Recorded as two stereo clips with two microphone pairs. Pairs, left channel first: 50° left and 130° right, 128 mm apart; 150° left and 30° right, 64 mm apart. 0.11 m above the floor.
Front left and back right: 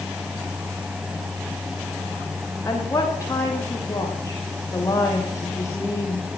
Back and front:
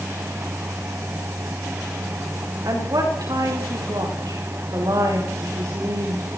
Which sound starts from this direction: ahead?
A woman speaking, at 2.6 s.